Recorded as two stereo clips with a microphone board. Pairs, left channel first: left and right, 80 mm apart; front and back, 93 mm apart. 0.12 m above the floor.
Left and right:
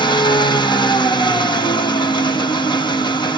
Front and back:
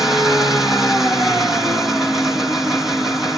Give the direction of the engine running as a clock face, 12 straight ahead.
9 o'clock.